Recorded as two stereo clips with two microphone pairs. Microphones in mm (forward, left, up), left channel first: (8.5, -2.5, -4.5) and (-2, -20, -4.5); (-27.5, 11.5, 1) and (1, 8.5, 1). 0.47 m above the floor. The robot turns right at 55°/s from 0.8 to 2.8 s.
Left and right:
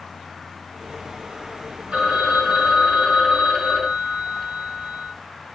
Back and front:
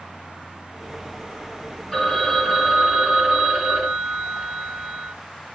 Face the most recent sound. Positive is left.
turn(degrees=-60)